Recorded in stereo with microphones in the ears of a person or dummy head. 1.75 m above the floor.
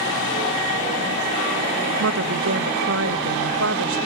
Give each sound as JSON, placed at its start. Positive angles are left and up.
{"t": 2.0, "sound": "a woman speaking", "side_deg": -70, "distance_m": 1.1}